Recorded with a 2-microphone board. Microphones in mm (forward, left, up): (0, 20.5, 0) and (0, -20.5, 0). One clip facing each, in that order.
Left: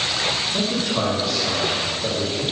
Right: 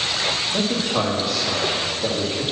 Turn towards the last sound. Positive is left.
turn(degrees=-25)  # may be behind; listen again after turning